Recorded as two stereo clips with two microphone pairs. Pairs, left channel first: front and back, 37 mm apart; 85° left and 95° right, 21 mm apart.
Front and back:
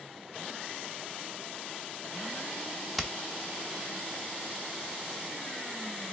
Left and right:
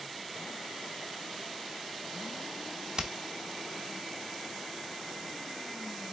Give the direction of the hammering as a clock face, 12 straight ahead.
3 o'clock.